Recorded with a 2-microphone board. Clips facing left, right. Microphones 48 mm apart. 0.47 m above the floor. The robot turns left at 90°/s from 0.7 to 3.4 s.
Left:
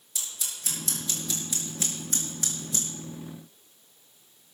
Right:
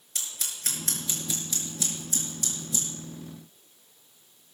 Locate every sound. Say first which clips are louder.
0.1 s scissors: right 1 dB; 65° right (ahead or behind), 4 m; by 2.9 s 50° left (ahead or behind), 4 m